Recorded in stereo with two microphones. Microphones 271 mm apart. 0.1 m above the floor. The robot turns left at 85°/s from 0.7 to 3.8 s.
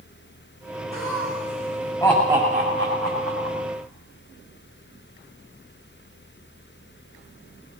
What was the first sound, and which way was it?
Laughter, 70° left (ahead or behind).